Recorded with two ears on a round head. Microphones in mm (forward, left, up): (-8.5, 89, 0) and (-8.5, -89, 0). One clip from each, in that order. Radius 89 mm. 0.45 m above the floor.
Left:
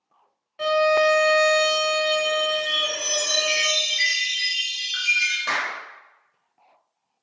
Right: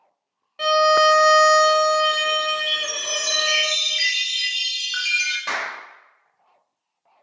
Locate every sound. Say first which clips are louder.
0.6 s a violin: right 3 dB; 20° right (ahead or behind), 0.7 m
2.7 s a chime: even; 50° right (ahead or behind), 1.1 m
5.5 s a clap: left 1 dB; 10° right (ahead or behind), 1.1 m